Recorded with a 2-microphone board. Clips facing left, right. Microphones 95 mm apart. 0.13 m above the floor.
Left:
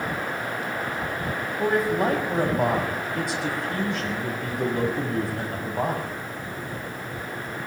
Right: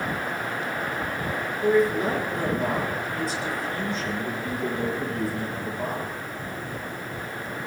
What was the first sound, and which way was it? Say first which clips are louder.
A man speaking: right 2 dB; 70° left (ahead or behind).